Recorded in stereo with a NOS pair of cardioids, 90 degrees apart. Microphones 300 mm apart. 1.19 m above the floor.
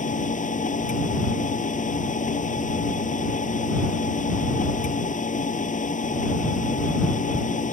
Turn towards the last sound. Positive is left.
turn(degrees=25)